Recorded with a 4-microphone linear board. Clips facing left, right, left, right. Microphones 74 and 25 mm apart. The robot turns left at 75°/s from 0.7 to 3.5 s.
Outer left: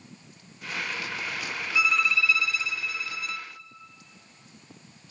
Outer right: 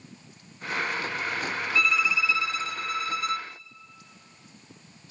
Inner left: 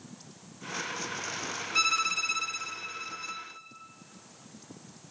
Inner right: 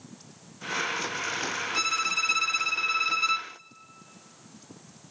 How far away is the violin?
About 0.9 m.